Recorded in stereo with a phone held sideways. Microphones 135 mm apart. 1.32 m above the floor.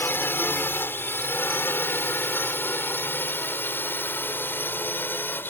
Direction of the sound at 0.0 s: 15° left (ahead or behind).